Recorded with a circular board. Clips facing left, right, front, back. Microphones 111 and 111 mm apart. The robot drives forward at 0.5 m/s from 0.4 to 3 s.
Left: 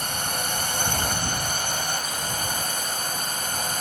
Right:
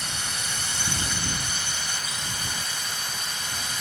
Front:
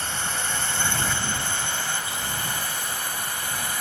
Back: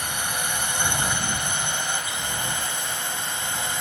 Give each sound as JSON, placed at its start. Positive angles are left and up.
{"t": 0.0, "sound": "a drone", "azimuth_deg": 110}